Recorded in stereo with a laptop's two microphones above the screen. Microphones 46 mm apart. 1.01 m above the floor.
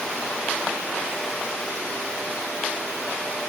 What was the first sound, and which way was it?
Only background noise.